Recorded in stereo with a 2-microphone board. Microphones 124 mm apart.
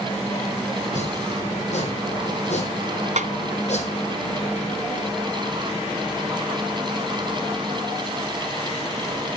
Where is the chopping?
65° left (ahead or behind), 4 m.